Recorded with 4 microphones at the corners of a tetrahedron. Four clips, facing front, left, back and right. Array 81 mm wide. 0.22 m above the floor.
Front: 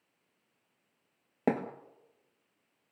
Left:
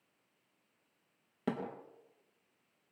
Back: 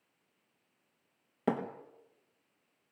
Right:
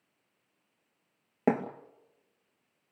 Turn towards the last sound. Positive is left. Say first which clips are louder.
# right 10 dB, front 2 dB
turn(degrees=-55)